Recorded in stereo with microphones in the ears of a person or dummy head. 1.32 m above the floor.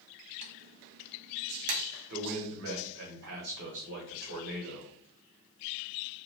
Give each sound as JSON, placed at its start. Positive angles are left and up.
{"t": 0.4, "sound": "typing on a keyboard", "side_deg": -50, "distance_m": 0.7}
{"t": 2.1, "sound": "a man speaking", "side_deg": -60, "distance_m": 1.3}